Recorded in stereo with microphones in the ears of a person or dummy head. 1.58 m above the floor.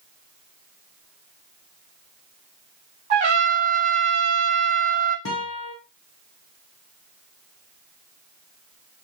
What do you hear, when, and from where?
3.1 s a trumpet: 35° right (ahead or behind), 0.9 m
5.2 s a guitar: 70° left (ahead or behind), 0.8 m